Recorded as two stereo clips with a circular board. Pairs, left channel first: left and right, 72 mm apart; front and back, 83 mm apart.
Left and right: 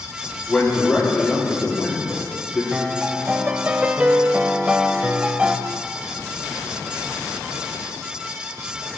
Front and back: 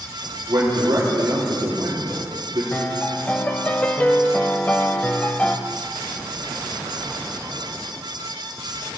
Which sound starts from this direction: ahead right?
A piano, at 2.7 s.